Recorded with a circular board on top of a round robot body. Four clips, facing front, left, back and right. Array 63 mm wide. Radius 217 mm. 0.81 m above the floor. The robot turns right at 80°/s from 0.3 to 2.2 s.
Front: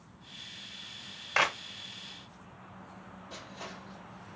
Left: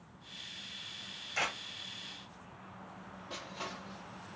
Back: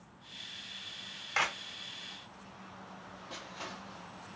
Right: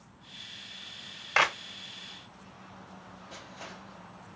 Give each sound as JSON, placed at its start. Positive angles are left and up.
{"t": 1.4, "sound": "a clap", "azimuth_deg": -75, "distance_m": 0.6}
{"t": 3.3, "sound": "crushing", "azimuth_deg": 125, "distance_m": 1.1}